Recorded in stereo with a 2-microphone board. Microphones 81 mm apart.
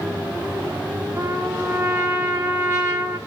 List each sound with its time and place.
1.2 s a trumpet: 30° right (ahead or behind), 2.5 m